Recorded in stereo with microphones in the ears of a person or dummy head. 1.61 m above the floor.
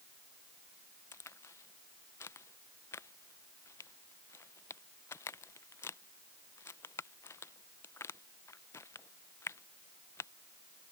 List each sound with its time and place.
1.1 s a crack: 10° left (ahead or behind)